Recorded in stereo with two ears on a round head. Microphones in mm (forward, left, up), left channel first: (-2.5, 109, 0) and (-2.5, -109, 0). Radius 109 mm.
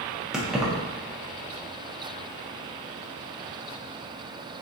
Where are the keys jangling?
Centre (ahead or behind), 0.5 m.